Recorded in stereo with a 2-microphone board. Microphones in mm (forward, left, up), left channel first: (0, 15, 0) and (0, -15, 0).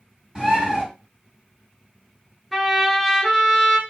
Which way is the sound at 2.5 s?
5° right (ahead or behind).